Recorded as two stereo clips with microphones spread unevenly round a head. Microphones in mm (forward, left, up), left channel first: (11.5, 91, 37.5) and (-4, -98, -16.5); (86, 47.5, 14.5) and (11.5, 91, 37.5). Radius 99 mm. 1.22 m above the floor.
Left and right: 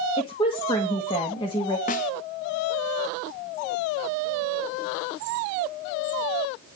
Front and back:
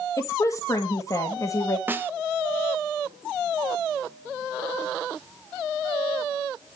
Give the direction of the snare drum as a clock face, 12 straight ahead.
9 o'clock.